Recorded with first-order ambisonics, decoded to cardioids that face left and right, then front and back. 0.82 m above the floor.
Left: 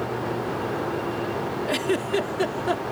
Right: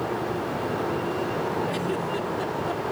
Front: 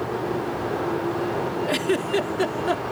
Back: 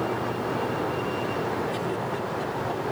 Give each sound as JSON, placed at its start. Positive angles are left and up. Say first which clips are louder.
{"t": 1.7, "sound": "a giggle", "louder": "left 3 dB, front 5 dB", "azimuth_deg": 35}